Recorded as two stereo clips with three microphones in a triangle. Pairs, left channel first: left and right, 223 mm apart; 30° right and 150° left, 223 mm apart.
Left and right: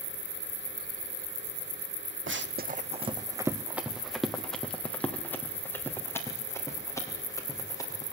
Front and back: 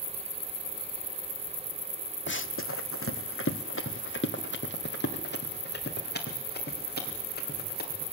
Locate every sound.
2.3 s running footsteps: 65° right, 0.7 m; by 8.1 s 15° left, 5 m